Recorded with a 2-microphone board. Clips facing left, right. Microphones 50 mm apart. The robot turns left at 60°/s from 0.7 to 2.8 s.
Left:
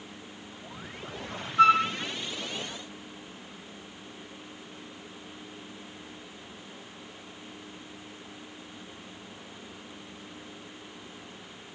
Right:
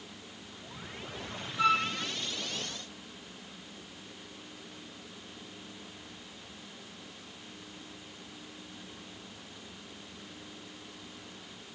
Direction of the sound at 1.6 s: 55° left (ahead or behind).